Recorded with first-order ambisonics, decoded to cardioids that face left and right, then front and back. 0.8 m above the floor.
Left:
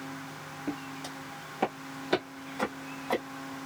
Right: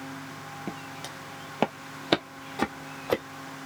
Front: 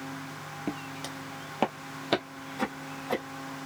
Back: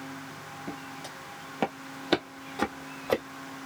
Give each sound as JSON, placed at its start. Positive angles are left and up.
{"t": 0.7, "sound": "footsteps", "azimuth_deg": -30, "distance_m": 1.0}